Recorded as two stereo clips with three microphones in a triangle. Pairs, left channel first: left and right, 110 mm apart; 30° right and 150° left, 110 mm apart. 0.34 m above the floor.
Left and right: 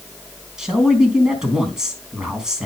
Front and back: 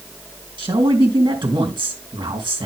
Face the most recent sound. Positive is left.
turn(degrees=-170)